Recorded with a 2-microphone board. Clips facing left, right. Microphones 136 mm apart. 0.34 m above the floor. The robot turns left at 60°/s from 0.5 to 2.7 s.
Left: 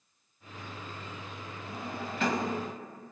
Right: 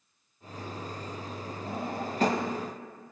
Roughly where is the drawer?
Right.